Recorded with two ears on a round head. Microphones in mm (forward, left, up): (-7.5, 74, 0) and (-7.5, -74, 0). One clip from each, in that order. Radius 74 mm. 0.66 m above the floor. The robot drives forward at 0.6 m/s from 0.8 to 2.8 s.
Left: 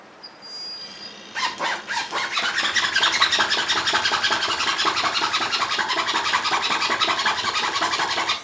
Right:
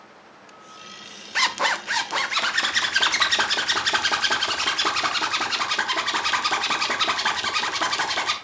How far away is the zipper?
About 0.6 m.